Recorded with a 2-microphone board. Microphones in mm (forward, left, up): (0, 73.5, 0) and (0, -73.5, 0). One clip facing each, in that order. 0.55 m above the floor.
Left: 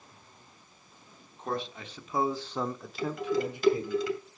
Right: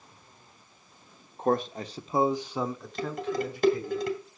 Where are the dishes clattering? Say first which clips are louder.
Left 1 dB; 50° right (ahead or behind), 2 m.